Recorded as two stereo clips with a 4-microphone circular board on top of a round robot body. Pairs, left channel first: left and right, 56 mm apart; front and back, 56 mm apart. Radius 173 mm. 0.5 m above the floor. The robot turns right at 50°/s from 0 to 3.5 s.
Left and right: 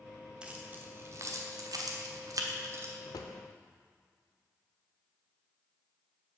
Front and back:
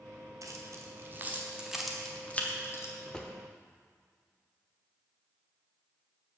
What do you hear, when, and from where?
0.4 s keys jangling: 165° right, 1.1 m; by 2.9 s 40° right, 1.1 m
3.1 s a drawer: 70° left, 0.6 m; by 3.3 s 85° left, 0.6 m